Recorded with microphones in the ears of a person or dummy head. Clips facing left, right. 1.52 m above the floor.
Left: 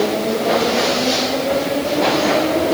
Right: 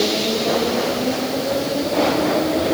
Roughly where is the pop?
No pop in this recording.